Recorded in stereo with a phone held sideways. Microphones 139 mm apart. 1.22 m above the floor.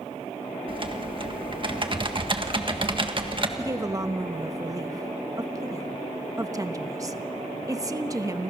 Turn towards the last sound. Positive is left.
turn(degrees=-25)  # may be behind; listen again after turning